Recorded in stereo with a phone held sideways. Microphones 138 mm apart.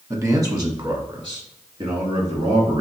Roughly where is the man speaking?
Centre.